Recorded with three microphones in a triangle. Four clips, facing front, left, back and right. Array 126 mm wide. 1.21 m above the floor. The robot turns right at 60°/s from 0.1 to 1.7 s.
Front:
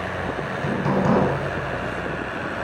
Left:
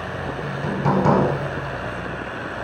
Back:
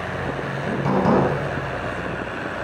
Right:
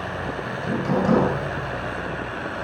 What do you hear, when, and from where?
0.4 s hammering: 75° left, 9 m; by 1.2 s 125° left, 9 m